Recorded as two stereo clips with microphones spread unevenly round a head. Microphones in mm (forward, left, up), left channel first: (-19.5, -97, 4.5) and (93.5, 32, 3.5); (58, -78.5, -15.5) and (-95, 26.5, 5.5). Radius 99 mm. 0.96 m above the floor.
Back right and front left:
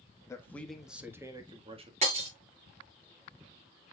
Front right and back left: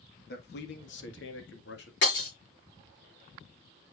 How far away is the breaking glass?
About 6 m.